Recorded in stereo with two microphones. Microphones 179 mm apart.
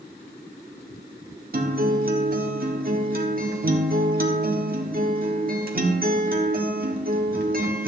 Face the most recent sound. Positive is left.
turn(degrees=-55)  # may be behind; listen again after turning